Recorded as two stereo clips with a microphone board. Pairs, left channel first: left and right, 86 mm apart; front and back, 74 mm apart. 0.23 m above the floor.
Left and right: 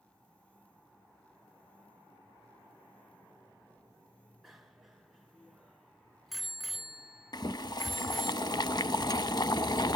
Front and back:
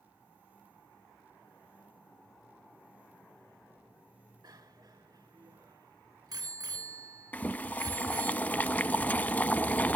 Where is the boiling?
65° left, 0.6 m.